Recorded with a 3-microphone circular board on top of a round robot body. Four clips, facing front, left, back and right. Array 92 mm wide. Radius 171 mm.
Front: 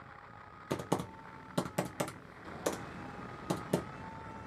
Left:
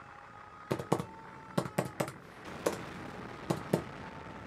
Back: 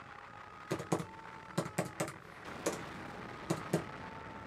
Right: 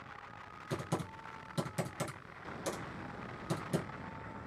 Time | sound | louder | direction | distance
0.7 | typing on a keyboard | left 6 dB, front 2 dB | 75° left | 0.7 m